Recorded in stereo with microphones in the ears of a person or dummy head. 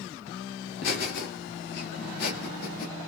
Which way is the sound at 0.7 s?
70° left (ahead or behind).